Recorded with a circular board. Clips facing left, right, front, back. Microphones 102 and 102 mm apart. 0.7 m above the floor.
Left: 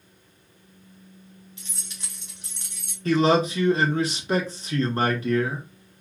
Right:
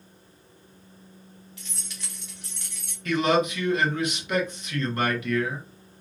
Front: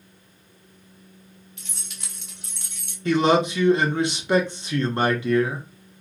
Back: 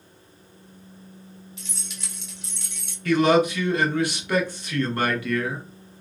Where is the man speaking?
55° left, 0.7 m.